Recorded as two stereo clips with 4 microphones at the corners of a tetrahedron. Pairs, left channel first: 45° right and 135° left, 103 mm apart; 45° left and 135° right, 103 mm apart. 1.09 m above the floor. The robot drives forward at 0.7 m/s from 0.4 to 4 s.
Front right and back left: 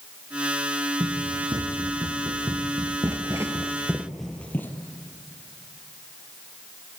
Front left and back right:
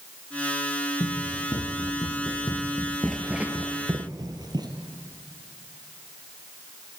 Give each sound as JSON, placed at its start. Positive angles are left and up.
{"t": 1.0, "sound": "running footsteps", "azimuth_deg": 90, "distance_m": 3.0}